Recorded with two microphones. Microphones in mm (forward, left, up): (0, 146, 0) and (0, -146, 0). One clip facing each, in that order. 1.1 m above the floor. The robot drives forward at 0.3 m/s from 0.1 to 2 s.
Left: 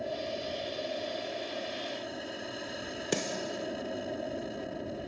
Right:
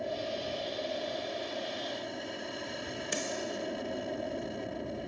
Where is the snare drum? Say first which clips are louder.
Left 4 dB; 75° left (ahead or behind).